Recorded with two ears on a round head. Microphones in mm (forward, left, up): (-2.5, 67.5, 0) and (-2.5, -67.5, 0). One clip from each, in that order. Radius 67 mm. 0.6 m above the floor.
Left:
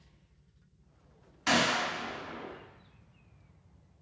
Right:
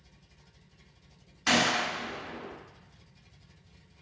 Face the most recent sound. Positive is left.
turn(degrees=-10)  # may be behind; listen again after turning